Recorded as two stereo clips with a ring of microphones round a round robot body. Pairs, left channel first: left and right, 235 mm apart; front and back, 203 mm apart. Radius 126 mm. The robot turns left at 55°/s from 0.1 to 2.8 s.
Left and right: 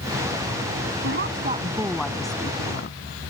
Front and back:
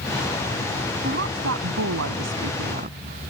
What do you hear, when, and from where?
1.0 s a woman speaking: 125° right; by 3.3 s 135° left